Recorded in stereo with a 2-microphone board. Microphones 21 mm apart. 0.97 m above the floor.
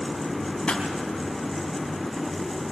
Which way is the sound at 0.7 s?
50° left (ahead or behind).